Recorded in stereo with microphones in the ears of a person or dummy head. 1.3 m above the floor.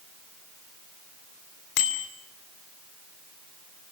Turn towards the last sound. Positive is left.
turn(degrees=75)  # may be behind; listen again after turning